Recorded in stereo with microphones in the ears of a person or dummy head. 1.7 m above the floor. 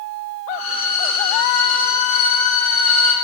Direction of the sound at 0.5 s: 35° left (ahead or behind).